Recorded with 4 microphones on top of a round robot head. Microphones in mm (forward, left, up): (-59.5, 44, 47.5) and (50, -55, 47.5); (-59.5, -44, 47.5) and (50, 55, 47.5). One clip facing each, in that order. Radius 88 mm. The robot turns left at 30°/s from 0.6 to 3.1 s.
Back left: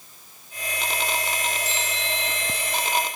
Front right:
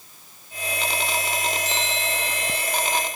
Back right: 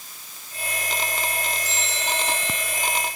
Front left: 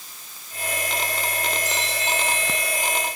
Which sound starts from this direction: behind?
A bell, at 1.6 s.